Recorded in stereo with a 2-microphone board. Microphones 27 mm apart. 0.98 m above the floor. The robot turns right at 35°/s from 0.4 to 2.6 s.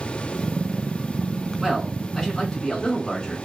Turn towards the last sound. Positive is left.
turn(degrees=25)